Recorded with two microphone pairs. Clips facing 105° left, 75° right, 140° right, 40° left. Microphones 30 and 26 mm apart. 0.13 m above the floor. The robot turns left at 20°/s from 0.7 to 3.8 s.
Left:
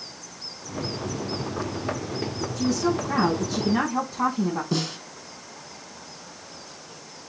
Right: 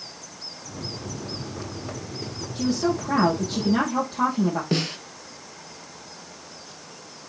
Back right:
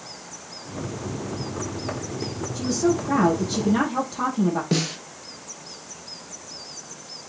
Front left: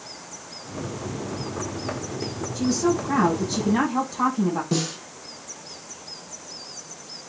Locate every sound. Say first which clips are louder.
2.5 s a woman speaking: right 1 dB, even; 55° right, 5 m; by 4.6 s 80° right, 5 m
4.7 s a snare drum: right 2 dB, back right 1 dB; 85° right, 1.8 m